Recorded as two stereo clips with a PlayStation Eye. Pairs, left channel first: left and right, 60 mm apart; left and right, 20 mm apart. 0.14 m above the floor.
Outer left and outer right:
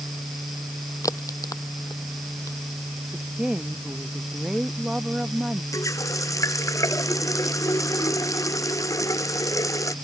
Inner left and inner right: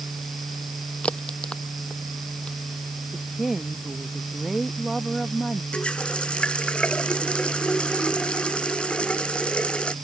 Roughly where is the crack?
Left.